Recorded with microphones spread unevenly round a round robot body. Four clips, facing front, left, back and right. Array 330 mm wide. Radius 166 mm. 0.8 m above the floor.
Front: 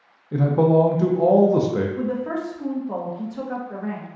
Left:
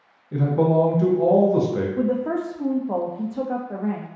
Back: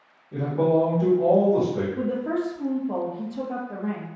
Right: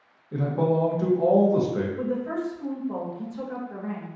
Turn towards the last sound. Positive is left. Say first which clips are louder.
# left 5 dB, even
turn(degrees=100)